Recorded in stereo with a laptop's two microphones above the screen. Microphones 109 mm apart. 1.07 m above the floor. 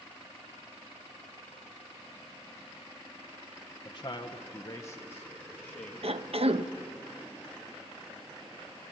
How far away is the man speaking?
About 0.9 m.